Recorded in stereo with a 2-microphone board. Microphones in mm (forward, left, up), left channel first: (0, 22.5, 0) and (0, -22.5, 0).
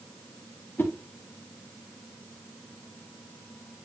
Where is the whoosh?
55° left (ahead or behind), 1.4 m.